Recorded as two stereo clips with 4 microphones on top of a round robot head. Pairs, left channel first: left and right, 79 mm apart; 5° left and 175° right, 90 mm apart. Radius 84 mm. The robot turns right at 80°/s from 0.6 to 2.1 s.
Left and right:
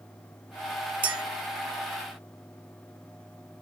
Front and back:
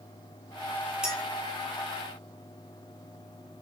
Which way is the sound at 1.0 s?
90° right.